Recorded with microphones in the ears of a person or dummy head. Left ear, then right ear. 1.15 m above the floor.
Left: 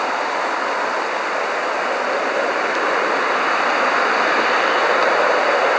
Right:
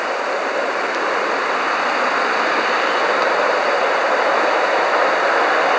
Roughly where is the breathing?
No breathing in this recording.